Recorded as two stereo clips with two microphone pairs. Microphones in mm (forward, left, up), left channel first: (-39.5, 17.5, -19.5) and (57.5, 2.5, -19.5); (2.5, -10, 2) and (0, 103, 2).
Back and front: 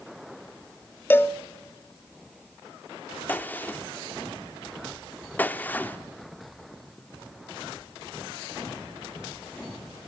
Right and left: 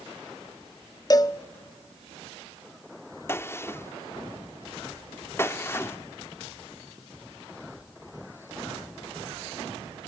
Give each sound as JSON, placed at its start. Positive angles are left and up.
{"t": 1.1, "sound": "a cowbell", "azimuth_deg": -125, "distance_m": 0.8}
{"t": 3.3, "sound": "a gunshot", "azimuth_deg": -135, "distance_m": 0.8}